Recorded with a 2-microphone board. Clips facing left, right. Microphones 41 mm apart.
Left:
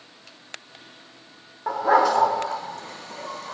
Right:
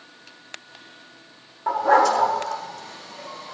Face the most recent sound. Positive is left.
turn(degrees=60)  # may be behind; listen again after turning